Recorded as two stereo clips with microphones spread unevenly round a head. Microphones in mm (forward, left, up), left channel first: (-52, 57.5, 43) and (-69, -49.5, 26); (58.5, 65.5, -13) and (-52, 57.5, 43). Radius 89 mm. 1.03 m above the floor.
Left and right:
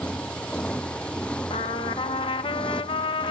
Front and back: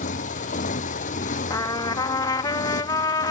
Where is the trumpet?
30° left.